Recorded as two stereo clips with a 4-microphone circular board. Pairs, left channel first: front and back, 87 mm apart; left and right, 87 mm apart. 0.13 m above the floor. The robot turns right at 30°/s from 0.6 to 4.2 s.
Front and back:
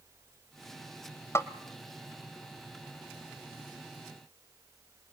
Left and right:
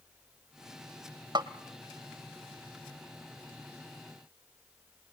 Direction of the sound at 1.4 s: 55° right.